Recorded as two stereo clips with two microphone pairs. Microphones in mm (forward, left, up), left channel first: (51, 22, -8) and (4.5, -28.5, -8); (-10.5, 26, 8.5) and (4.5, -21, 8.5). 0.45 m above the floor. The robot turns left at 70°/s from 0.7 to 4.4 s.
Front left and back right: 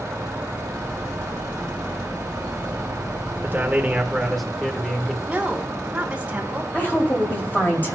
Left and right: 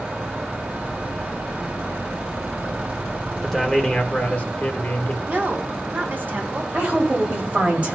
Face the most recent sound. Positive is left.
turn(degrees=-10)